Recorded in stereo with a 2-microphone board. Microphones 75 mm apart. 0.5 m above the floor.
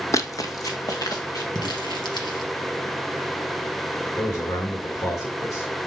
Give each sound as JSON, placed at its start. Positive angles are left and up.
{"t": 0.1, "sound": "running footsteps", "side_deg": 45, "distance_m": 0.8}
{"t": 1.6, "sound": "crumpling", "side_deg": 75, "distance_m": 2.5}
{"t": 4.2, "sound": "a man speaking", "side_deg": 50, "distance_m": 1.9}